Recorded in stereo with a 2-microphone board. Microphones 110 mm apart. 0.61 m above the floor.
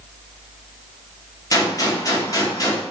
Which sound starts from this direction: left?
A gunshot, at 1.5 s.